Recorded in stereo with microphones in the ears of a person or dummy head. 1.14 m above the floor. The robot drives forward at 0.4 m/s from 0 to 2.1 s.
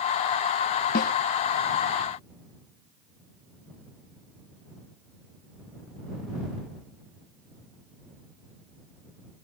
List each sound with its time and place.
0.9 s a snare drum: 45° left (ahead or behind); by 1.1 s 50° left (ahead or behind)